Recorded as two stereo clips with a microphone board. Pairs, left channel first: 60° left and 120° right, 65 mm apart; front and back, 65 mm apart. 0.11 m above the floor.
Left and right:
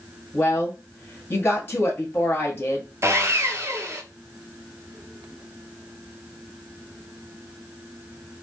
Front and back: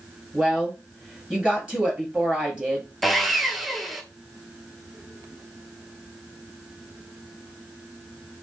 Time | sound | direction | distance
0.3 | a woman speaking | 110° left | 2 m
3.0 | sawing | 90° right | 0.8 m